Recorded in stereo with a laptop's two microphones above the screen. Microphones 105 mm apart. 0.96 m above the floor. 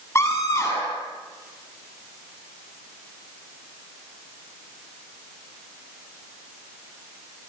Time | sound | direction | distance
0.1 | a scream | 25° left (ahead or behind) | 7.5 m